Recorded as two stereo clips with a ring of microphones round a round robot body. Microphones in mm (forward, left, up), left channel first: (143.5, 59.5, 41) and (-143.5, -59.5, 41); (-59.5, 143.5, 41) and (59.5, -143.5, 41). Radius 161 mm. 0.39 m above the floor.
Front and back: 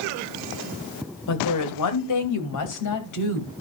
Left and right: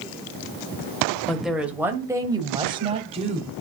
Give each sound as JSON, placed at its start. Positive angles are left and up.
{"t": 1.3, "sound": "a woman speaking", "azimuth_deg": 25, "distance_m": 2.5}